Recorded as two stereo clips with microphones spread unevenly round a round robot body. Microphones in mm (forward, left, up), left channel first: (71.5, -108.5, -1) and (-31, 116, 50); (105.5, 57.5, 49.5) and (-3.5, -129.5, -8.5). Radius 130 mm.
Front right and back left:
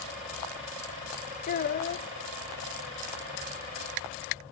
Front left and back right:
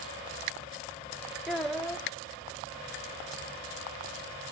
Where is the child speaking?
45° right, 0.6 m.